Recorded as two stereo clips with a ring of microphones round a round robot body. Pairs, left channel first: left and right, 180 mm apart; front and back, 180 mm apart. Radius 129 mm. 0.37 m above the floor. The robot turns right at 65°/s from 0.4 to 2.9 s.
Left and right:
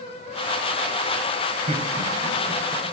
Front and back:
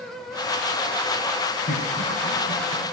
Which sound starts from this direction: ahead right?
Laughter, at 1.7 s.